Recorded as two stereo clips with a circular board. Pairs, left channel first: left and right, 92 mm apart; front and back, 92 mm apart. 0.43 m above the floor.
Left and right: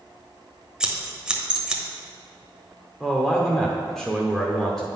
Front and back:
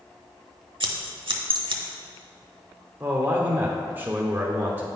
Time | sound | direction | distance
0.8 | scissors | 170° right | 1.0 m
3.0 | a man speaking | 165° left | 0.8 m